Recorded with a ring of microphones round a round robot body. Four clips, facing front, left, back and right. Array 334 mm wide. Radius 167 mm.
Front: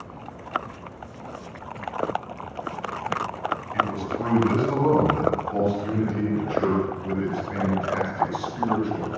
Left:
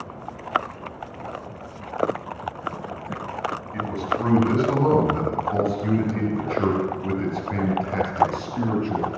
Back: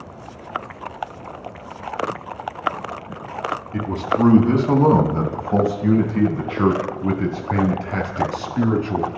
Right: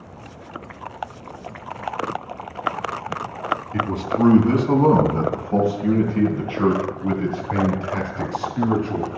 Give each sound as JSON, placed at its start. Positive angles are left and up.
{"t": 3.7, "sound": "a man speaking", "azimuth_deg": -150, "distance_m": 6.0}